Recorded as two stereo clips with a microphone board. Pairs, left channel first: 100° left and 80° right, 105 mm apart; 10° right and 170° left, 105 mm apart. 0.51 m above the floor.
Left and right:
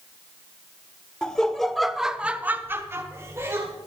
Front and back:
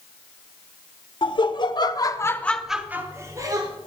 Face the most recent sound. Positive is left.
turn(degrees=-140)